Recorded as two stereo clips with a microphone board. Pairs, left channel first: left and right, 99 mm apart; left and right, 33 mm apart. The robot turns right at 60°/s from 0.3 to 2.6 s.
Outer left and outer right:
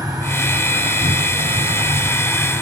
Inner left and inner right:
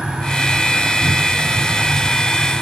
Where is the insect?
140° right, 2.5 m; by 2.6 s 5° right, 2.5 m.